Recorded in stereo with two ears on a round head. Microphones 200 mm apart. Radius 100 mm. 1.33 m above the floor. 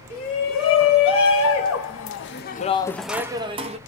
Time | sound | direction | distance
0.1 | a shout | 65° left (ahead or behind) | 2.0 m